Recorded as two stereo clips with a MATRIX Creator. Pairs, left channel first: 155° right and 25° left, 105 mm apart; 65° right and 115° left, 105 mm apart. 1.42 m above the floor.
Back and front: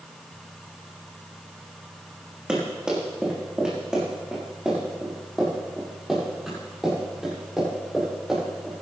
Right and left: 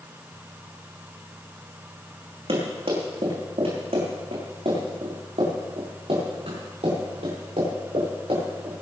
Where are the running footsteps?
105° left, 5 m; by 8.8 s 110° left, 9.5 m.